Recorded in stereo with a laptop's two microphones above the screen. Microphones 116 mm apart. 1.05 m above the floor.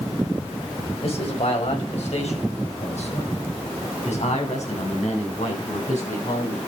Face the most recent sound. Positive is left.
turn(degrees=85)